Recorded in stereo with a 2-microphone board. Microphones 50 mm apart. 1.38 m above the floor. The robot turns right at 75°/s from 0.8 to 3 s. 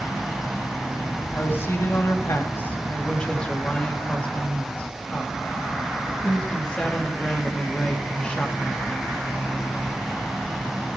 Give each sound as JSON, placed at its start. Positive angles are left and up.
{"t": 1.3, "sound": "a woman speaking", "azimuth_deg": 35, "distance_m": 2.5}